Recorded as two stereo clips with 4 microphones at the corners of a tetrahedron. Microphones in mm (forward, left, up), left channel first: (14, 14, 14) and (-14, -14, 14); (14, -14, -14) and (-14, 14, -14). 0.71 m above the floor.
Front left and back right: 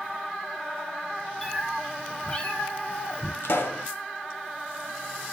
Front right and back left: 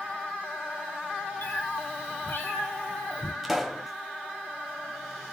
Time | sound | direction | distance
1.4 | a cat meowing | 40° right | 1.5 m
3.4 | a pop | 45° left | 1.3 m